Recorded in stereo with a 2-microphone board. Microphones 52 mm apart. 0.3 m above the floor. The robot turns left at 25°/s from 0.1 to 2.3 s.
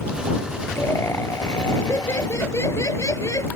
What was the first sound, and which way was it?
Laughter, 125° left.